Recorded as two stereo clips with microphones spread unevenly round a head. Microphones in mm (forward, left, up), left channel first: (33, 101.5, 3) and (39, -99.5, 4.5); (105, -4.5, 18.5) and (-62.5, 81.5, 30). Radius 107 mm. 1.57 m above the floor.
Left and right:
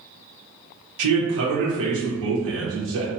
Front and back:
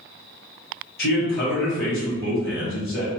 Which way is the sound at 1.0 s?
75° right.